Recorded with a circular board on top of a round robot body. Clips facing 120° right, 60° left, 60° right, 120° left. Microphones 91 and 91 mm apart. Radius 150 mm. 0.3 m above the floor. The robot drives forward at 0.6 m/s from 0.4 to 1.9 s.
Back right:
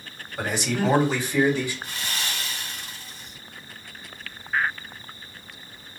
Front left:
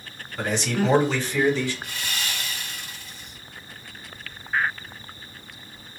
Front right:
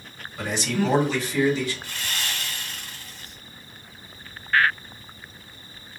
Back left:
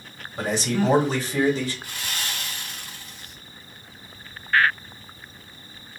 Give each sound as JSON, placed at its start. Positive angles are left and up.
{"t": 0.4, "sound": "a man speaking", "azimuth_deg": 160, "distance_m": 1.9}
{"t": 1.8, "sound": "sawing", "azimuth_deg": -170, "distance_m": 2.5}